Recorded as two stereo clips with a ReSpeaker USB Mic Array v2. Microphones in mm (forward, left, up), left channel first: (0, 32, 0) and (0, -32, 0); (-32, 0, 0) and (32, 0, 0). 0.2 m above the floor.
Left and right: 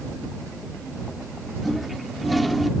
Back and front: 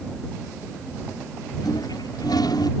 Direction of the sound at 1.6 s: Straight behind.